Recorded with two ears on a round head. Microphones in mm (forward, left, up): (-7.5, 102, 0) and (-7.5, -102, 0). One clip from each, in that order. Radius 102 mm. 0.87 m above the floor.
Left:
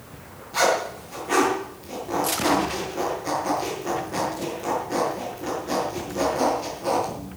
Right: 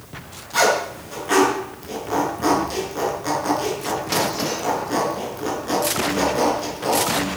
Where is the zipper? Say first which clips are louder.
Right 3 dB; 30° right (ahead or behind), 7 m.